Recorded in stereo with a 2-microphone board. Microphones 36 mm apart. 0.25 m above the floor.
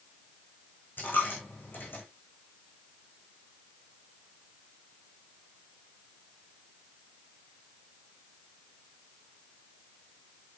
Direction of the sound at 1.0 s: 75° left (ahead or behind).